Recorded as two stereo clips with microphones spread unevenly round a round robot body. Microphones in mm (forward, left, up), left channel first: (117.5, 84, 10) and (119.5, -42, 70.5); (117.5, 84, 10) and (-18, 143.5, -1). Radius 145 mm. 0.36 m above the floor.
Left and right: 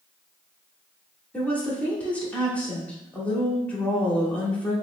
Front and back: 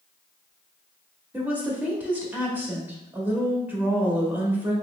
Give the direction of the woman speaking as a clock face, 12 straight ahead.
9 o'clock.